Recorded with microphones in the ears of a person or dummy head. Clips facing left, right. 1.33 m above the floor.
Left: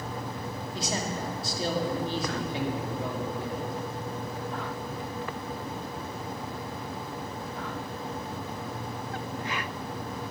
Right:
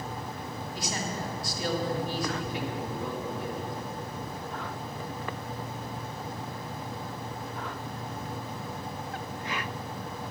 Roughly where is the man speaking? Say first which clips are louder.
Left 3 dB; left.